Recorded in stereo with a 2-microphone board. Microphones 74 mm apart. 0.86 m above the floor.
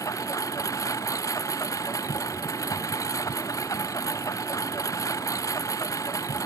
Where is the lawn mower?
50° left (ahead or behind).